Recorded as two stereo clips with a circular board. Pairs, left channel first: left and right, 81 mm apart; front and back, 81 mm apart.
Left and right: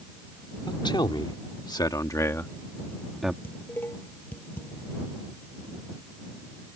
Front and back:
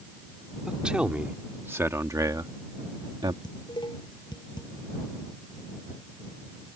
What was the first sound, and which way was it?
A man speaking, 100° left.